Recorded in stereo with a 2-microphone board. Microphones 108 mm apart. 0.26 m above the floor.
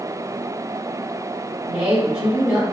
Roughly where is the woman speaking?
Centre.